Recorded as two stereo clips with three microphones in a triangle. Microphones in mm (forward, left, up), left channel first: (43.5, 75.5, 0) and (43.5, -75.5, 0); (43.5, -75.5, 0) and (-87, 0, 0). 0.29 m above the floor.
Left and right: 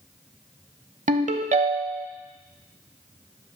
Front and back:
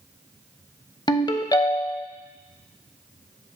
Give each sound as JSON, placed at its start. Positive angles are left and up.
{"t": 1.1, "sound": "a ringtone", "azimuth_deg": -85, "distance_m": 0.5}